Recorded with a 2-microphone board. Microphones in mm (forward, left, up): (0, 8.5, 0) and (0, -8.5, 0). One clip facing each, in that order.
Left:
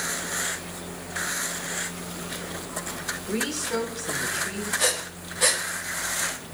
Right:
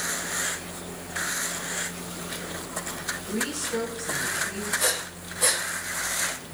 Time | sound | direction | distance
3.3 | a woman speaking | 80° left | 7 m
4.8 | breathing | 30° left (ahead or behind) | 4.5 m